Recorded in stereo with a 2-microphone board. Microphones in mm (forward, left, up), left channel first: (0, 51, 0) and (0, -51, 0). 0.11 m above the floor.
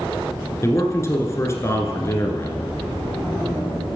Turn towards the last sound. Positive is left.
turn(degrees=30)  # may be behind; listen again after turning